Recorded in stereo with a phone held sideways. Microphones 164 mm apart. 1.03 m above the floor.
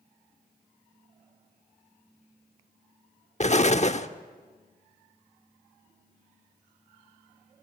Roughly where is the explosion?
Left.